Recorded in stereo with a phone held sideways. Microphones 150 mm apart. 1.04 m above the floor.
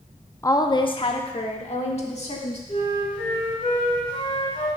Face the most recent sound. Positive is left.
turn(degrees=40)  # may be behind; listen again after turning